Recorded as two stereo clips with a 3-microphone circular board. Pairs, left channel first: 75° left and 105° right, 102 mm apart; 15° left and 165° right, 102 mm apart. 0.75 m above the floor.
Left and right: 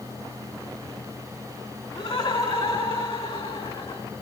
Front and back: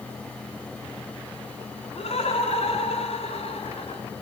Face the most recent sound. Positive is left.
turn(degrees=45)